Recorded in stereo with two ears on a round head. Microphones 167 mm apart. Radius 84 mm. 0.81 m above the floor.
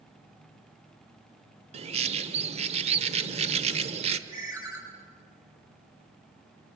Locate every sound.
1.7 s a bird: 30° right (ahead or behind), 1.0 m
4.3 s a ringtone: 15° right (ahead or behind), 5.5 m